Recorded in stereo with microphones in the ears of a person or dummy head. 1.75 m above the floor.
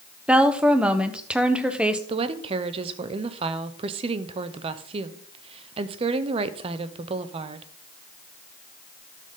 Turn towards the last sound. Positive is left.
turn(degrees=-35)  # may be behind; listen again after turning